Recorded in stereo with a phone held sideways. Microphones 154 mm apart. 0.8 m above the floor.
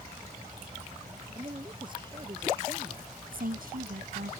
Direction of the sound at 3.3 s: 70° right (ahead or behind).